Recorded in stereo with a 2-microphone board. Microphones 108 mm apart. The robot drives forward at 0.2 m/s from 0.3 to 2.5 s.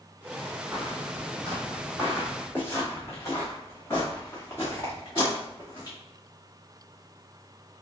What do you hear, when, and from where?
0.7 s footsteps: 5° right (ahead or behind), 1.1 m; by 6.0 s 35° left (ahead or behind), 3.5 m